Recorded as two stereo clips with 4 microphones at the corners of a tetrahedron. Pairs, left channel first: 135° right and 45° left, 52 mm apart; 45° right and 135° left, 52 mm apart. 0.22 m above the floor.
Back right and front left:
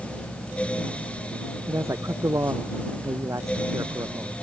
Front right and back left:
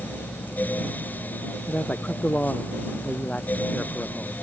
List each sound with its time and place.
1.7 s a man speaking: 20° left; by 4.3 s 25° left